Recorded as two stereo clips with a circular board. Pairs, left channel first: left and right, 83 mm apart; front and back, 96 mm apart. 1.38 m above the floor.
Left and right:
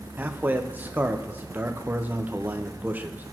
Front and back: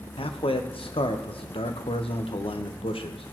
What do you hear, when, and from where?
0.2 s a man speaking: 20° right, 0.7 m